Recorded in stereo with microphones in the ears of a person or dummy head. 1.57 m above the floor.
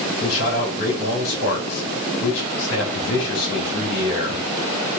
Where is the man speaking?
75° left (ahead or behind), 2 m.